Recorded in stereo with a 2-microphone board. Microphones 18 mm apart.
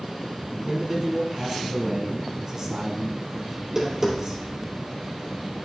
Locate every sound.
0.6 s a man speaking: 25° right (ahead or behind), 2.5 m
3.6 s tapping: 30° right (ahead or behind), 2.5 m